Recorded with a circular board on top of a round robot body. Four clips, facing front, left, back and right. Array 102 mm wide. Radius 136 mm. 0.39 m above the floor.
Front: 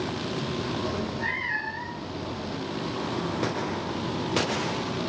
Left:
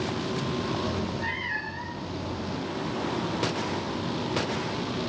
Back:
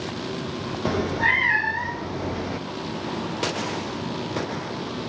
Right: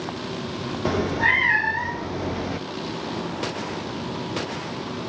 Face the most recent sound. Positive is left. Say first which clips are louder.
# right 8 dB, back 7 dB
turn(degrees=-125)